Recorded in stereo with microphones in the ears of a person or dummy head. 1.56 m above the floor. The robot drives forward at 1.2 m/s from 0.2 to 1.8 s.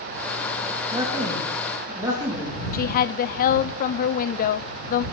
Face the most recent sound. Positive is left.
turn(degrees=45)  # may be behind; listen again after turning